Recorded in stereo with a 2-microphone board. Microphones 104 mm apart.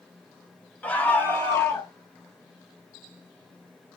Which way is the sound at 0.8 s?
15° left (ahead or behind).